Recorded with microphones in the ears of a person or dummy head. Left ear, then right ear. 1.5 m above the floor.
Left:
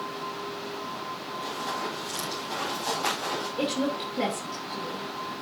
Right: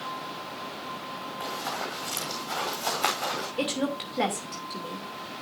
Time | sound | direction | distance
1.4 | running footsteps | 35° right (ahead or behind) | 5.5 m
3.6 | a woman speaking | 35° right (ahead or behind) | 2.5 m